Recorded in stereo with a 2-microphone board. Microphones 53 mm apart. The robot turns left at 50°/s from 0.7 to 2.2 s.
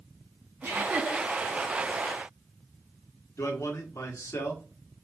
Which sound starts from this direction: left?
A man speaking, at 3.4 s.